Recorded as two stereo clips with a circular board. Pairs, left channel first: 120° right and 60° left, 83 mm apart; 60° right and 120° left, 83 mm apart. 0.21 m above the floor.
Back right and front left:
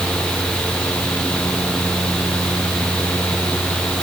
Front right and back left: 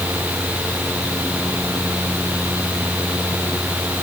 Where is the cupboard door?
I don't hear a cupboard door.